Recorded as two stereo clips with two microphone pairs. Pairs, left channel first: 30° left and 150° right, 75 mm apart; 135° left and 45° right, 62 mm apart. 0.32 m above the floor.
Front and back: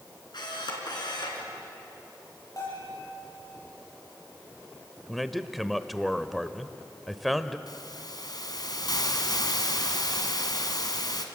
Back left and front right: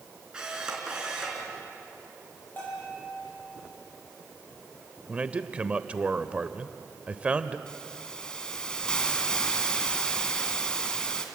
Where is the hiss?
55° left, 2 m.